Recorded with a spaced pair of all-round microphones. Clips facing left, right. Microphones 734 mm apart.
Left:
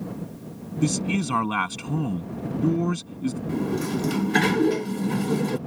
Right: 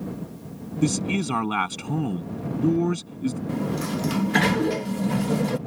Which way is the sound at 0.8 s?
5° left (ahead or behind).